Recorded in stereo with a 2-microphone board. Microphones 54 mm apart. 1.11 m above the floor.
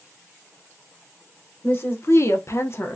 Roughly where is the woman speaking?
Left.